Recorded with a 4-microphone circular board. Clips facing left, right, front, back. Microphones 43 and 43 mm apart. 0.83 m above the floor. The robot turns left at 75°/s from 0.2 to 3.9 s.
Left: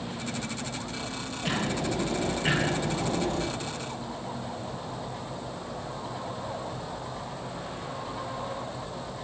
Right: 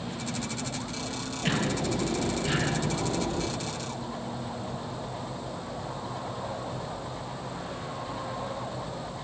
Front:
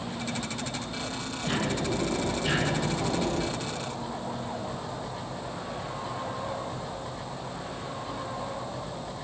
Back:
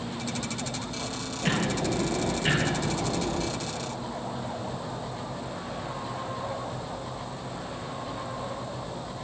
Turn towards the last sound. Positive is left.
turn(degrees=25)